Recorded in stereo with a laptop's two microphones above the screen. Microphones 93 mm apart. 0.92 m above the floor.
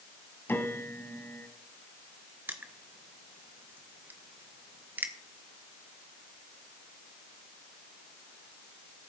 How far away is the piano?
About 1.4 m.